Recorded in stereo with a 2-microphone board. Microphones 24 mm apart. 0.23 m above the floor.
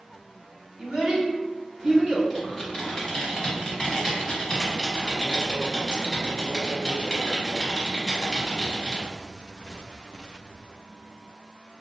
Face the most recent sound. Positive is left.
turn(degrees=15)  # may be behind; listen again after turning